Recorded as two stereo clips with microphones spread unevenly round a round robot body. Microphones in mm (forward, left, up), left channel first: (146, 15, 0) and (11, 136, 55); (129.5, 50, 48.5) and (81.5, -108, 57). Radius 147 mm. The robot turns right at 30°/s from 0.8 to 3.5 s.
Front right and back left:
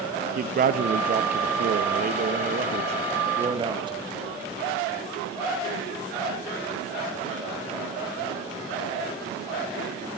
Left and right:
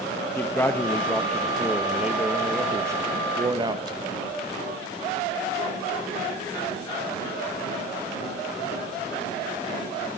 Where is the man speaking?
130° left, 0.6 m; by 4.0 s 150° right, 0.6 m.